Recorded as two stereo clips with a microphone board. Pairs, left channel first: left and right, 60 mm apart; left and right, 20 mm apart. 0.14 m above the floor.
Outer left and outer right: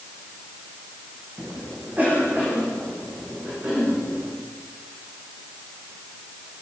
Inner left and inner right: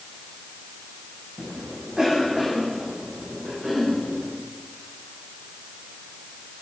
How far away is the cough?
About 8.5 m.